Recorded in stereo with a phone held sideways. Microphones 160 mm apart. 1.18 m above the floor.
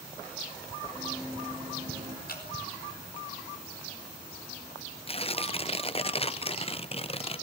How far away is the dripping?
About 4.5 m.